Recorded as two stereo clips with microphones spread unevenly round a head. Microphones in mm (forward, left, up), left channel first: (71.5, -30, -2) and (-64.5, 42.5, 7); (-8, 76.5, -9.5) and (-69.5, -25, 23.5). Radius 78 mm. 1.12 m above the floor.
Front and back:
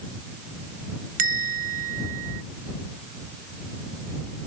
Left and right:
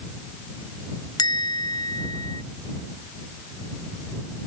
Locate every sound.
1.2 s a bell: 120° left